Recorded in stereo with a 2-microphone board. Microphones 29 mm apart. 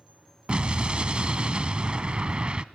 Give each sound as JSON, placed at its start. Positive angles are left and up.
{"t": 0.5, "sound": "an explosion", "side_deg": -35, "distance_m": 0.6}